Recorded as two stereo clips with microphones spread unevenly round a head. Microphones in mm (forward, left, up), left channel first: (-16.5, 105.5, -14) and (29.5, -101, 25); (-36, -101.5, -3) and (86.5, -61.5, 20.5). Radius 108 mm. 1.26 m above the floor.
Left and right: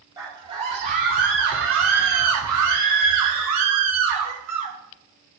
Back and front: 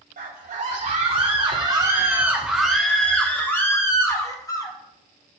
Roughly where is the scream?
Ahead.